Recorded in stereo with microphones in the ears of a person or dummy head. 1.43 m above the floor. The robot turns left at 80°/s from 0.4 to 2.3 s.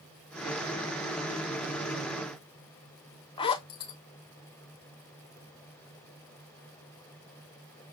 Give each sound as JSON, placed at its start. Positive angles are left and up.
{"t": 3.4, "sound": "a zipper", "side_deg": 25, "distance_m": 0.6}